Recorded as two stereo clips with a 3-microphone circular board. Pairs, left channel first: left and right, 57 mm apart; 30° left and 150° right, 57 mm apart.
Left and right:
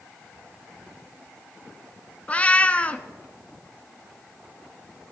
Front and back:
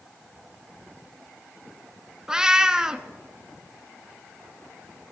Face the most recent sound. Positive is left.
turn(degrees=140)